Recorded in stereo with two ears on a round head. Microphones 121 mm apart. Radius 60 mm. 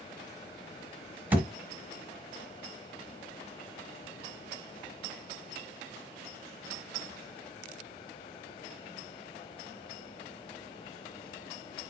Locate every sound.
1.3 s a thud: 15° right (ahead or behind), 1.3 m